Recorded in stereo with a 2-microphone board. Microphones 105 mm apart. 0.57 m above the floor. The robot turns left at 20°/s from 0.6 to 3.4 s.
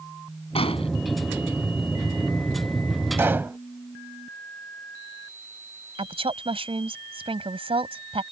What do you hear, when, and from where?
0.6 s an explosion: 75° left (ahead or behind); by 0.9 s 80° left
3.2 s a pop: 25° right (ahead or behind); by 3.6 s 20° right (ahead or behind)
6.0 s a woman speaking: 70° right (ahead or behind)